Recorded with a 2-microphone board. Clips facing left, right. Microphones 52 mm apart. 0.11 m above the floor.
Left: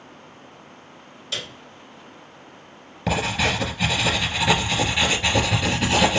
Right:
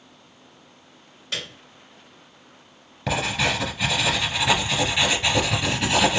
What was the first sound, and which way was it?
A piano, 30° right (ahead or behind).